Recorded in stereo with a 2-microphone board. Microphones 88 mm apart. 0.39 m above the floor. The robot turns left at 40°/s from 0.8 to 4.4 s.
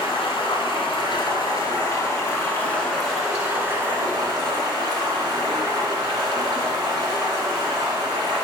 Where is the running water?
90° left, 2.5 m; by 8.4 s 55° right, 2.5 m.